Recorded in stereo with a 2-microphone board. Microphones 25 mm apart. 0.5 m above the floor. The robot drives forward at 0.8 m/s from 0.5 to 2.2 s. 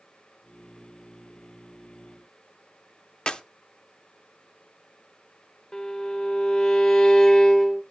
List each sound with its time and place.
3.3 s a clap: 35° left (ahead or behind), 0.8 m
5.7 s a violin: 25° left (ahead or behind), 1.2 m